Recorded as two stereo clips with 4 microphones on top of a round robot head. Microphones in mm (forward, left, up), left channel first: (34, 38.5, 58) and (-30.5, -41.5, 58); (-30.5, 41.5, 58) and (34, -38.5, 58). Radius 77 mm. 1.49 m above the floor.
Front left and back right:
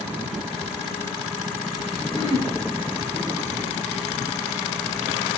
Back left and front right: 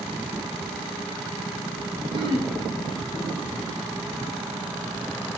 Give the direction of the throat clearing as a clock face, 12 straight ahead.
12 o'clock.